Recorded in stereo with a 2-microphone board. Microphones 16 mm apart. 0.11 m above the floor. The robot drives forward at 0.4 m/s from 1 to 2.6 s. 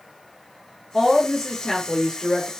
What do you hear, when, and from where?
0.9 s a woman speaking: 35° left (ahead or behind), 1.5 m; by 2.5 s 30° left (ahead or behind), 1.7 m